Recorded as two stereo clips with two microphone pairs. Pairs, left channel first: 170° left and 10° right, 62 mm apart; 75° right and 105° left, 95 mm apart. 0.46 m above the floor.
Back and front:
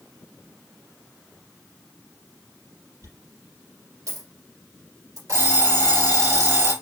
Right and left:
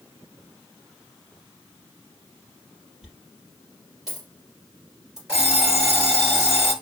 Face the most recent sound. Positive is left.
turn(degrees=25)